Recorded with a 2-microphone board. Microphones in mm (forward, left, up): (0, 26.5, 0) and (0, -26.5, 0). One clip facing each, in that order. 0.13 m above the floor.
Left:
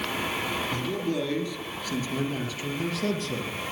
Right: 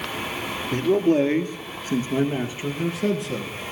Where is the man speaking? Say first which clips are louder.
Right 9 dB; 55° right (ahead or behind), 1.8 m; by 3.5 s 10° right (ahead or behind), 2.5 m.